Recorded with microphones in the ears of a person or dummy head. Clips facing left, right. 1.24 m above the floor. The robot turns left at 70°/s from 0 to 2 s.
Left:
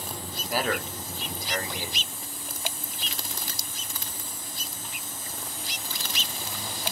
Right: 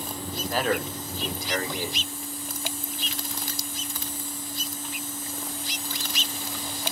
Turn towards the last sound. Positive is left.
turn(degrees=-95)